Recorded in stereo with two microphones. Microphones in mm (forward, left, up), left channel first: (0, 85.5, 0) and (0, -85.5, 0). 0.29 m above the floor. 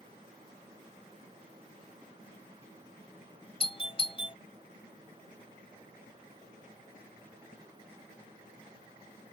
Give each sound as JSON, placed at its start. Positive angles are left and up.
{"t": 3.6, "sound": "a doorbell", "side_deg": 35}